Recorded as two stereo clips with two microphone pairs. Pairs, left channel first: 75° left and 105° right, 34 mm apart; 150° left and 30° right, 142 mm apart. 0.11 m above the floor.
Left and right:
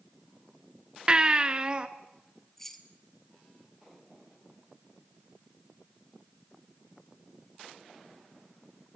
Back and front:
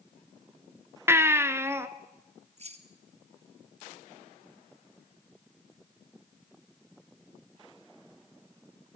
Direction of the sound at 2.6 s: 5° right.